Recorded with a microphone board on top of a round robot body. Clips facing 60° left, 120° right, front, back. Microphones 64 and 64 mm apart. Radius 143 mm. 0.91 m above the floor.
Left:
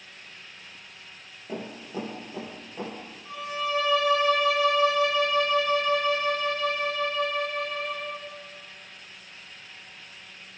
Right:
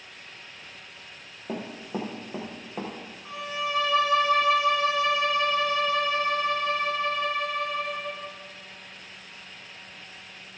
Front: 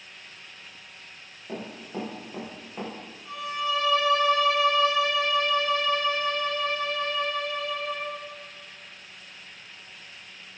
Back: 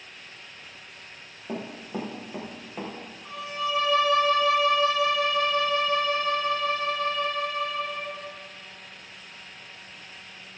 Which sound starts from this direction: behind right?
A violin, at 3.2 s.